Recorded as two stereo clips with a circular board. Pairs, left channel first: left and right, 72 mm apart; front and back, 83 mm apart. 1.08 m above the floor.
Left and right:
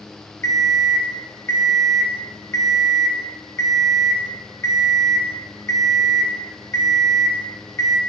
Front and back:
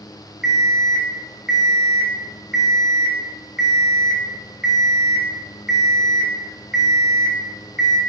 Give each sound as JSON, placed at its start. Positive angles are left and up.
{"t": 0.4, "sound": "an alarm clock", "azimuth_deg": 100, "distance_m": 0.6}